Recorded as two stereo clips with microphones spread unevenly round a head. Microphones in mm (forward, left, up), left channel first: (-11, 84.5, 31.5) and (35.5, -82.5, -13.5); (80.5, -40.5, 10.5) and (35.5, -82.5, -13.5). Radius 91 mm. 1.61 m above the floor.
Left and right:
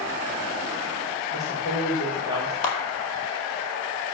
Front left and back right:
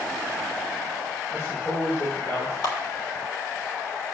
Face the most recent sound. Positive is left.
turn(degrees=65)